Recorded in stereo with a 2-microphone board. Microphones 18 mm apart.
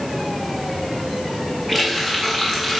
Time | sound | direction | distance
1.7 | a running tap | 10° right (ahead or behind) | 7.5 m